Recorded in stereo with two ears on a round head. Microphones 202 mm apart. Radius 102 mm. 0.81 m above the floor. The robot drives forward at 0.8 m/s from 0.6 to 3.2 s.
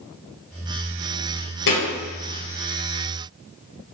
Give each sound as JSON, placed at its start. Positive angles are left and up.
{"t": 1.7, "sound": "a thud", "side_deg": 60, "distance_m": 3.0}